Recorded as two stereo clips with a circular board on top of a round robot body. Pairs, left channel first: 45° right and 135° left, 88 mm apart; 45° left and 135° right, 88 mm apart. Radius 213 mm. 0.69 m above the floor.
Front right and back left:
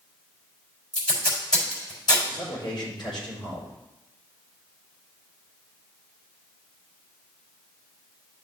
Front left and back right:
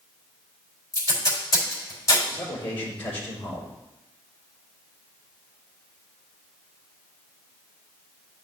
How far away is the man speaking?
About 3.5 m.